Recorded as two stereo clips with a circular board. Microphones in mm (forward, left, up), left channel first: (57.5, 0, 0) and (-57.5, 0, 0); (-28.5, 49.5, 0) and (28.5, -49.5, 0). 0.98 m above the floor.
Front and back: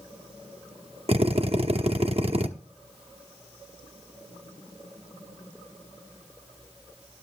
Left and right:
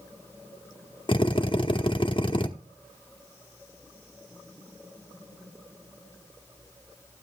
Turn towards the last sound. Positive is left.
turn(degrees=160)